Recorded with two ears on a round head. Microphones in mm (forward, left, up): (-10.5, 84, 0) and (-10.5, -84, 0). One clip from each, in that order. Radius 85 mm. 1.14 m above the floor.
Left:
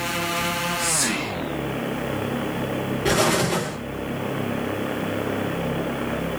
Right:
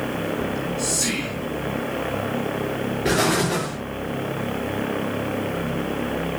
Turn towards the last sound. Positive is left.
turn(degrees=20)  # may be behind; listen again after turning